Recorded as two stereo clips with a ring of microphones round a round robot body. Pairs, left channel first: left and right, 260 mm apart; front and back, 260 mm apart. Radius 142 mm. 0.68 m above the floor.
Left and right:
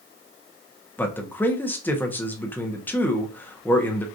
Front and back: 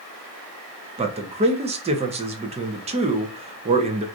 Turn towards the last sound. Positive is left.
turn(degrees=165)